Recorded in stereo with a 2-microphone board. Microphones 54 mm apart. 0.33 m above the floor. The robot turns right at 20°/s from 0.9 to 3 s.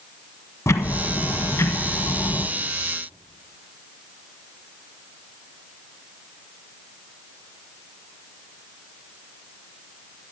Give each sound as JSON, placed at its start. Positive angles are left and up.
{"t": 0.7, "sound": "ticking", "azimuth_deg": 65, "distance_m": 0.8}